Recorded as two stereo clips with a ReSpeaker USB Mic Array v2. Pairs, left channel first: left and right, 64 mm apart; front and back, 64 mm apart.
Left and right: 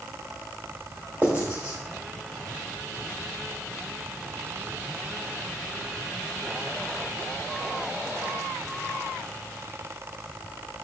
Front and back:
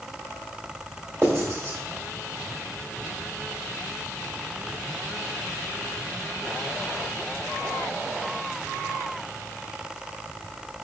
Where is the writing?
140° right, 1.7 m.